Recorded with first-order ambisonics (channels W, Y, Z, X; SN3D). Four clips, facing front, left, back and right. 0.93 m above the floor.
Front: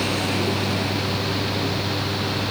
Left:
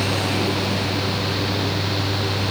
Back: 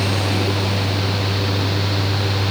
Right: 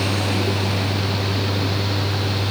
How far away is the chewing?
No chewing in this recording.